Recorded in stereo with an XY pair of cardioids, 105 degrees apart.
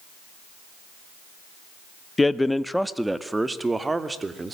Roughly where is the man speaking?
Ahead.